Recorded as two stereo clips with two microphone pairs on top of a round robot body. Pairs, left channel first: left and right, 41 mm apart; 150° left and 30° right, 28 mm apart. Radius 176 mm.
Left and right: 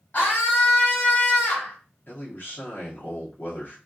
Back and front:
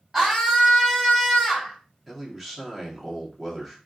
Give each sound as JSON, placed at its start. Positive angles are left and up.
{"t": 0.1, "sound": "a scream", "azimuth_deg": 45, "distance_m": 3.0}
{"t": 2.1, "sound": "a man speaking", "azimuth_deg": 55, "distance_m": 2.0}